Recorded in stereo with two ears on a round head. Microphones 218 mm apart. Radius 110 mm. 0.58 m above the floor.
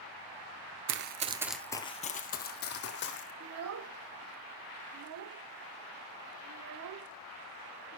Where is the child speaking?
65° right (ahead or behind), 0.7 m.